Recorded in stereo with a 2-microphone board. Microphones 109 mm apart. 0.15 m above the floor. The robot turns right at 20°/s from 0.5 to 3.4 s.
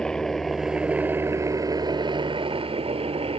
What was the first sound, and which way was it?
A helicopter, 5° left (ahead or behind).